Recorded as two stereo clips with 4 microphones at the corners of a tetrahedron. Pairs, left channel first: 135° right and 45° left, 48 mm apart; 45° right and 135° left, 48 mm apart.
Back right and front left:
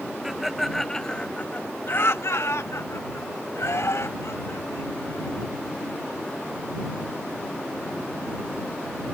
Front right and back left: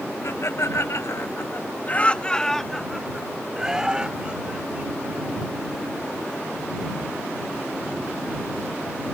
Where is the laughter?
40° right; by 5.4 s 160° right.